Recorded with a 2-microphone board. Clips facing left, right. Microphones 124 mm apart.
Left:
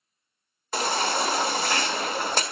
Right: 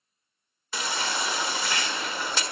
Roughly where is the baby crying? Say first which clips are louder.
Left 5 dB; left.